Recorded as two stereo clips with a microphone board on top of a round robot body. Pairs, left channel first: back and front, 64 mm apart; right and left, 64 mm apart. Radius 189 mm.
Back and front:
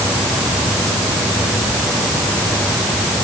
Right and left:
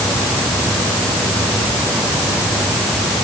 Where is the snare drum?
I don't hear a snare drum.